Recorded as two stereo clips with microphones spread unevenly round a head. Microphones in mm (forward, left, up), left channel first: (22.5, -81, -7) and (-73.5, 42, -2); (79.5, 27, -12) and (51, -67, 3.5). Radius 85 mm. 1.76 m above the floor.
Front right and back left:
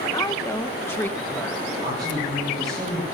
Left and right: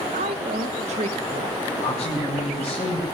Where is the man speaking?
60° left, 9 m.